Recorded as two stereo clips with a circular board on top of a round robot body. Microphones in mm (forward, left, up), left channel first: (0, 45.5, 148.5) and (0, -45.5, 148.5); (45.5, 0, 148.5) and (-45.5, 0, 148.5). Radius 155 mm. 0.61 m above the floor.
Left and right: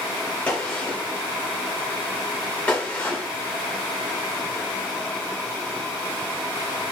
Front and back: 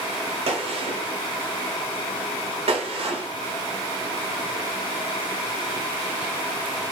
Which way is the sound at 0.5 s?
165° left.